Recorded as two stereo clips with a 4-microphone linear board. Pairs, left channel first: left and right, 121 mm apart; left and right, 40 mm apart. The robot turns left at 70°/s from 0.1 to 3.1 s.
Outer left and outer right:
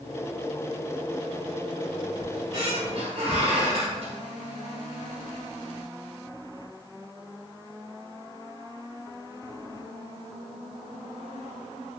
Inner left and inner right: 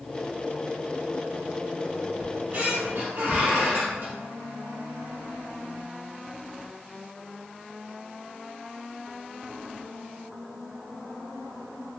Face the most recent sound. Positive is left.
turn(degrees=-80)